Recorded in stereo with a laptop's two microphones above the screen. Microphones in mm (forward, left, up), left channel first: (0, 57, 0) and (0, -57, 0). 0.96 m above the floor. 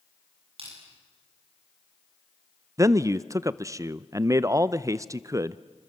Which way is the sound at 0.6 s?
55° right (ahead or behind).